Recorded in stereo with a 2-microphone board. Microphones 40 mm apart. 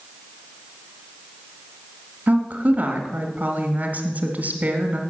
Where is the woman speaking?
40° right (ahead or behind), 1.6 m.